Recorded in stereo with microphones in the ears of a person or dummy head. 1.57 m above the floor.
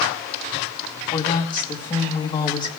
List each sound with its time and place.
1.1 s a woman speaking: 20° left (ahead or behind), 1.6 m